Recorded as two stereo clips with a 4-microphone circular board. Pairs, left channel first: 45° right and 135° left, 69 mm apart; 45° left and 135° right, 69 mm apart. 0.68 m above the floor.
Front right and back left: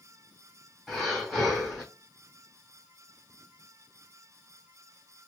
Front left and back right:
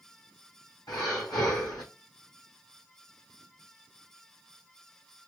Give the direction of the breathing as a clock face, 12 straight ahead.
11 o'clock.